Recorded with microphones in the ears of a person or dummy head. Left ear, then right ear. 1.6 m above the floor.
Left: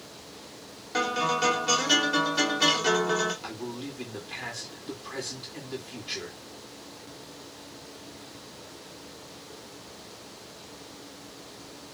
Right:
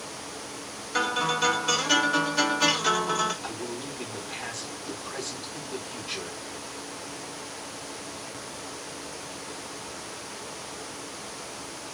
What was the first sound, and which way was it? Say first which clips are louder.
A guitar: right 1 dB; centre (ahead or behind).